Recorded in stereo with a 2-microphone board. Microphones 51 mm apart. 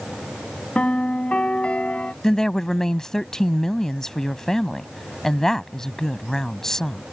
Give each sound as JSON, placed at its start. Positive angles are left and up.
{"t": 0.8, "sound": "a piano", "side_deg": 25}
{"t": 2.2, "sound": "a woman speaking", "side_deg": 10}